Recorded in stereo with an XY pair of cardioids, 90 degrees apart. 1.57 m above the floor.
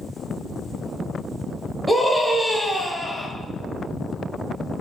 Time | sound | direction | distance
1.9 | a scream | 5° right | 0.7 m